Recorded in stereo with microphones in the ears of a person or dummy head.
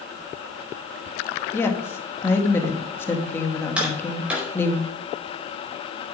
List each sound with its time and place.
1.5 s a woman speaking: 10° left (ahead or behind), 2 m
3.8 s tapping: 10° right (ahead or behind), 4.5 m